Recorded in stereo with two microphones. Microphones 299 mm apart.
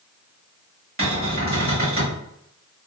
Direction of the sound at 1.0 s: 45° right (ahead or behind).